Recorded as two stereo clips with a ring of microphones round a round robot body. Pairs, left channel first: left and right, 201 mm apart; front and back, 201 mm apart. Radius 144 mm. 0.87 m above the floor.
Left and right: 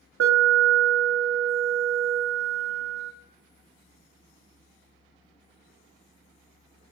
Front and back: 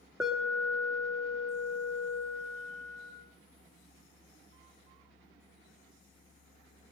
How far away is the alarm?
About 1.0 m.